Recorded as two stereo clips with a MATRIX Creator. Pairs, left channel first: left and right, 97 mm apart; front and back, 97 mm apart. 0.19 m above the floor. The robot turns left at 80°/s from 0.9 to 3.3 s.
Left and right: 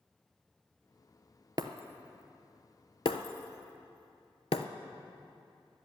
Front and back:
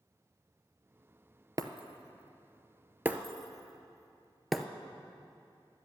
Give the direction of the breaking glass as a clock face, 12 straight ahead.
4 o'clock.